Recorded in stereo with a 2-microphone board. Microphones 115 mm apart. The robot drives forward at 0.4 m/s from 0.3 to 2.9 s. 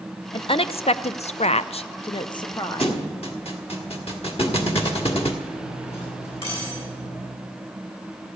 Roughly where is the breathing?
No breathing in this recording.